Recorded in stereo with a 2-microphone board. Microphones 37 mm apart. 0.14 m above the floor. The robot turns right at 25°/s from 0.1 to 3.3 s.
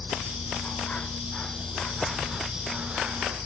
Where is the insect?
130° left; by 3.5 s 150° right.